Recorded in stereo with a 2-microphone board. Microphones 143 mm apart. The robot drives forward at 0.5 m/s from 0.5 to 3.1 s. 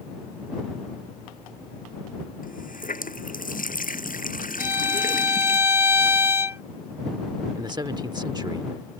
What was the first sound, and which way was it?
A running tap, 75° left (ahead or behind).